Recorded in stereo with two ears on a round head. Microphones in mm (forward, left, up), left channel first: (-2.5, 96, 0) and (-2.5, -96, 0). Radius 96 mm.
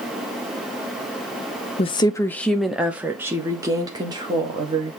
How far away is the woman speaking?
About 0.7 m.